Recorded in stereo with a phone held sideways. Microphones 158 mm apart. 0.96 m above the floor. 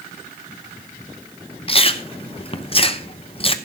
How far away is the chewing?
About 0.8 m.